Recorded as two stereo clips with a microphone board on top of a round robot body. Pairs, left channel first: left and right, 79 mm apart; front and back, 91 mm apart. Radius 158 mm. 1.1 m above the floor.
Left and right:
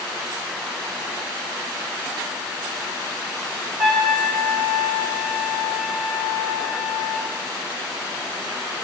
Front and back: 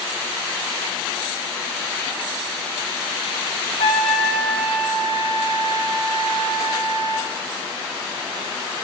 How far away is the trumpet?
About 2.5 m.